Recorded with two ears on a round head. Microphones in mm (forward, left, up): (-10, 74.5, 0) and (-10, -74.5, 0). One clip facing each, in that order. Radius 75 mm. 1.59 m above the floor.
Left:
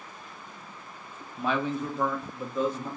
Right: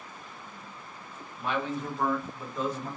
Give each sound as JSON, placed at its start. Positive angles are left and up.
{"t": 1.4, "sound": "a man speaking", "side_deg": 60, "distance_m": 0.8}